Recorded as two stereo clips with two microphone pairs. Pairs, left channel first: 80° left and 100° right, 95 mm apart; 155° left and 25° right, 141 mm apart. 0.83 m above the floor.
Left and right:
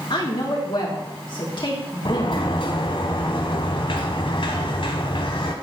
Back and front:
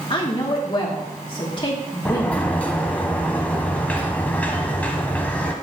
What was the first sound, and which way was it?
A woman speaking, 105° left.